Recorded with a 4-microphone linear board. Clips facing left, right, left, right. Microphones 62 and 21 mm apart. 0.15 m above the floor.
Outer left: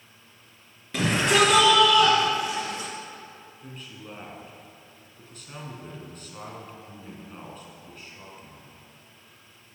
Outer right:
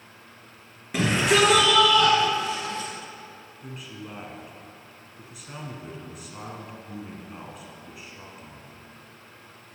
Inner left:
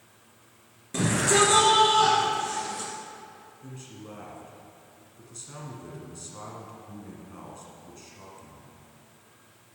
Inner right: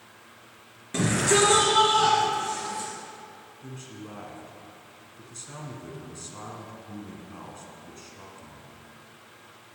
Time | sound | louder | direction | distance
0.9 | a shout | even, even | 20° right (ahead or behind) | 2.5 m
3.6 | a man speaking | outer right 4 dB, inner right 2 dB | 10° right (ahead or behind) | 1.6 m